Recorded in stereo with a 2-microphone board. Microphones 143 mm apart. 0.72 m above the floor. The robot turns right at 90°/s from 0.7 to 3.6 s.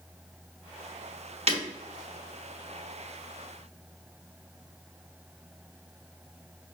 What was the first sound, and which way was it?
Breaking glass, 50° right (ahead or behind).